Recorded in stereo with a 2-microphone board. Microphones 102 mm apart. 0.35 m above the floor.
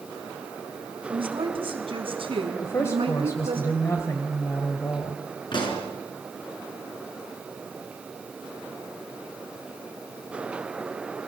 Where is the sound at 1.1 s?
60° right (ahead or behind), 3 m; by 3.6 s 70° right (ahead or behind), 5 m.